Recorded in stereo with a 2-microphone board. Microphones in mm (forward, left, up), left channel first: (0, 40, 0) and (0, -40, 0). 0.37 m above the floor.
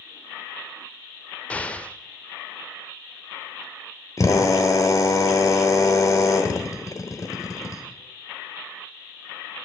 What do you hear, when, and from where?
1.5 s an explosion: 15° left (ahead or behind), 0.5 m
4.2 s a drill: 45° left (ahead or behind), 1.3 m